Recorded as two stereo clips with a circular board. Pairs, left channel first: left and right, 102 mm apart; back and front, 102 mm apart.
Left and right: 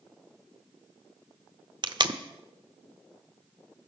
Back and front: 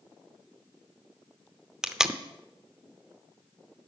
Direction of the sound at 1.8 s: 80° right.